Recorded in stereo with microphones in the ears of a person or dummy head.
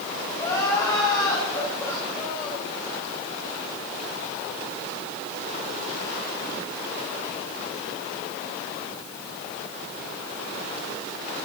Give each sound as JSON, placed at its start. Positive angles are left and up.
{"t": 0.4, "sound": "crying", "side_deg": 20, "distance_m": 8.5}